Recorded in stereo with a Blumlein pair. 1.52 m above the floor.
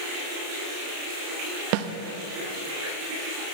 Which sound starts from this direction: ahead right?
A snare drum, at 1.7 s.